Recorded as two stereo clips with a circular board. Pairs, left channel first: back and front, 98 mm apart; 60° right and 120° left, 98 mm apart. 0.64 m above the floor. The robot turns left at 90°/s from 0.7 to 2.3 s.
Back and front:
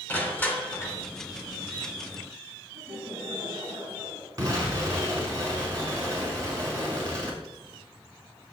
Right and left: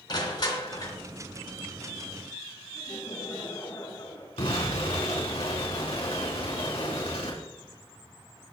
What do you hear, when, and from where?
0.1 s crushing: 105° right, 3 m; by 1.0 s 130° right, 3 m
2.7 s laughter: 20° right, 6 m
4.4 s an explosion: 50° right, 5 m